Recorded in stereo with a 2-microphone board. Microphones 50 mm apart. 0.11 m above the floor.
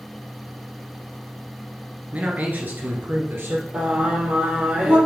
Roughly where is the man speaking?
Right.